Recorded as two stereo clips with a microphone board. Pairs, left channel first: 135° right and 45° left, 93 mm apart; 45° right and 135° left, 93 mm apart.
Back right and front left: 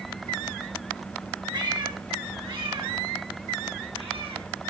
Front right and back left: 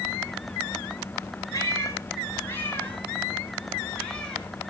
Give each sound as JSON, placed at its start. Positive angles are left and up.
{"t": 1.5, "sound": "a cat meowing", "azimuth_deg": 5, "distance_m": 3.5}